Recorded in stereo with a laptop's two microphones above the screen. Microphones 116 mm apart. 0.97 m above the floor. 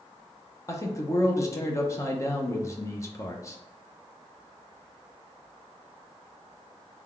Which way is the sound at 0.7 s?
25° left (ahead or behind).